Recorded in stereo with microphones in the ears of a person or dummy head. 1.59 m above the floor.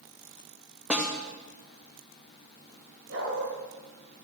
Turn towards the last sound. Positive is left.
turn(degrees=-80)